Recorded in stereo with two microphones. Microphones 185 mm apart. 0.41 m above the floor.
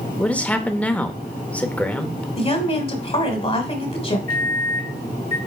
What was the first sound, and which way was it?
A man speaking, 5° left (ahead or behind).